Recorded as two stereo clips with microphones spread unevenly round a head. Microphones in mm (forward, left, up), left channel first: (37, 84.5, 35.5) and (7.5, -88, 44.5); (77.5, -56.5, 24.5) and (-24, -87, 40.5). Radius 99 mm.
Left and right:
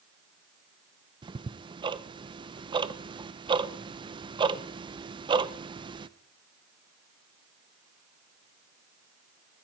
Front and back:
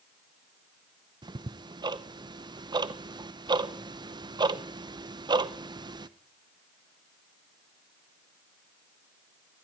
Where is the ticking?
145° right, 0.8 m.